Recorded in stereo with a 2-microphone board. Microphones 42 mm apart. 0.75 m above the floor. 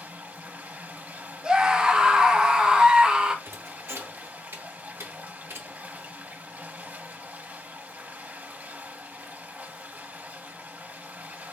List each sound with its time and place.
0.0 s running water: 40° right (ahead or behind), 0.9 m
1.4 s a scream: 20° right (ahead or behind), 0.9 m
3.5 s a thud: 80° right, 0.9 m